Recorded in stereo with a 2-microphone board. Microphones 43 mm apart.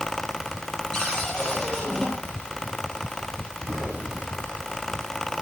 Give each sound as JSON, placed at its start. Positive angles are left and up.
{"t": 0.9, "sound": "a cupboard door", "side_deg": 15, "distance_m": 5.5}
{"t": 3.7, "sound": "an explosion", "side_deg": 0, "distance_m": 9.5}